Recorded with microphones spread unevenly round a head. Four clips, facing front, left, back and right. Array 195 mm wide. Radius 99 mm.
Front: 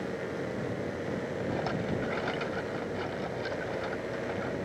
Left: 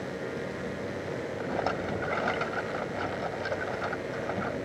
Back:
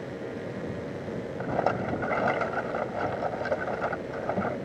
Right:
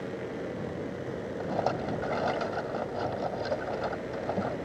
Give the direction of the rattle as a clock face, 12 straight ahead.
5 o'clock.